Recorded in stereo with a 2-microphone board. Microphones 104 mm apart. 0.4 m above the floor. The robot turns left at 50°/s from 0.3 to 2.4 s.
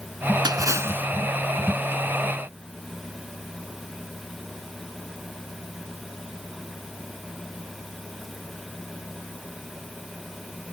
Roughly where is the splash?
Behind right.